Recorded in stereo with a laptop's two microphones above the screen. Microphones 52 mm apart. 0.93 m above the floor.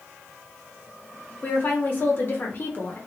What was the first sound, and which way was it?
A woman speaking, 45° left (ahead or behind).